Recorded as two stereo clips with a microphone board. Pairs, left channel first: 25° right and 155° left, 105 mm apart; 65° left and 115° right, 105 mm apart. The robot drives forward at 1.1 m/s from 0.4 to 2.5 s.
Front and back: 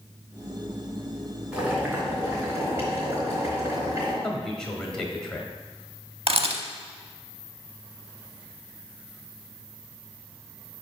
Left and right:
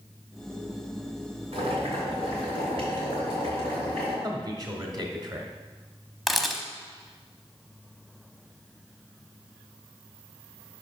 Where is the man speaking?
105° right, 1.2 m.